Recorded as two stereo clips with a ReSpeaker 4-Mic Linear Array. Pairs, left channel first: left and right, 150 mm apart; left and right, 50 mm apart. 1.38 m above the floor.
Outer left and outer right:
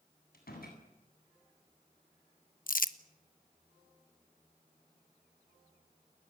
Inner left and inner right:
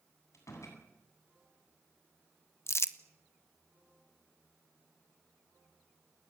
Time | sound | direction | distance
0.3 | a door slam | 85° left | 8.5 m
2.7 | crumpling | 65° left (ahead or behind) | 1.1 m